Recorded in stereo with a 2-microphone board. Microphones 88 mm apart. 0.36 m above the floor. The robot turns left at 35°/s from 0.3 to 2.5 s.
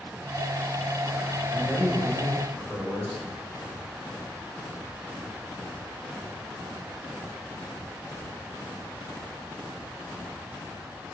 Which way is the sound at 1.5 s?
135° right.